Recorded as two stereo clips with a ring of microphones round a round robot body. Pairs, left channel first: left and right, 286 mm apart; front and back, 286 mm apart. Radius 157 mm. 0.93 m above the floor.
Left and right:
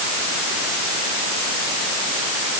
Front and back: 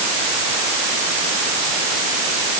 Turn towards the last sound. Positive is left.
No sound to turn to.